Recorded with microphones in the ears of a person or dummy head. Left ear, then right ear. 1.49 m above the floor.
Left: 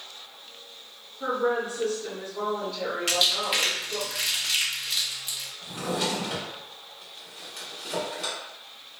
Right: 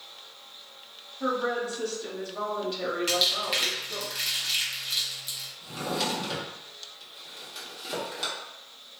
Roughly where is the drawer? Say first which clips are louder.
Left 1 dB; right.